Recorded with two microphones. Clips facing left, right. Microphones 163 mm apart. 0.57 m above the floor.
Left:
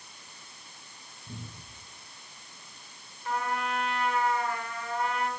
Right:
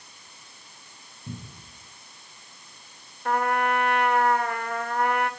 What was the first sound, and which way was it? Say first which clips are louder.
A cupboard door: right 5 dB; 85° right.